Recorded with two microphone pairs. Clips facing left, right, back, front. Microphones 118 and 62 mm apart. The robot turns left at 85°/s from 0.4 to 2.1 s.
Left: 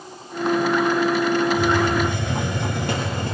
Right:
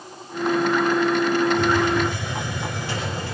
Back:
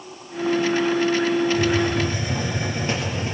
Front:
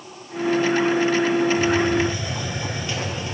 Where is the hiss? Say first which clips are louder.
Even, front 1 dB; 175° left, 7.5 m; by 3.3 s 125° left, 7.5 m.